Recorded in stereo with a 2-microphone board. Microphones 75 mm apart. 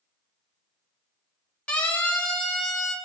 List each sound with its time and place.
1.7 s a siren: 15° left (ahead or behind), 4 m; by 2.9 s 5° left (ahead or behind), 4.5 m